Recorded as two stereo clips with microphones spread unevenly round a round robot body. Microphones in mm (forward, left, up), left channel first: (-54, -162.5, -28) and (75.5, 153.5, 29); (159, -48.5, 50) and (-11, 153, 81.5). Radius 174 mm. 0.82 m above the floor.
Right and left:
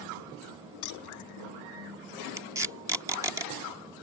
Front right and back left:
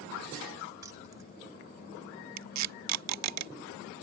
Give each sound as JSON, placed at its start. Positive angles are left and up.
{"t": 0.8, "sound": "keys jangling", "azimuth_deg": -150}
{"t": 2.4, "sound": "tape being pulled", "azimuth_deg": 150}